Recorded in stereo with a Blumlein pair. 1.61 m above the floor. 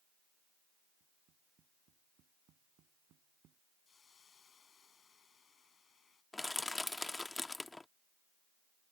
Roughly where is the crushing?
Ahead.